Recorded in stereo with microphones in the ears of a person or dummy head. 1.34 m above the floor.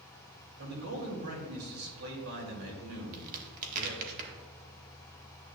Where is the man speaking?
85° right, 3 m.